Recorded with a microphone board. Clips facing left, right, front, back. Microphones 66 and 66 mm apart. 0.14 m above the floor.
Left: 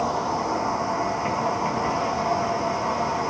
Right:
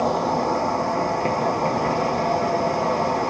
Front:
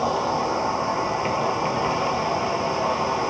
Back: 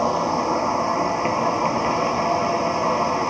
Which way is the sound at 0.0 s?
110° right.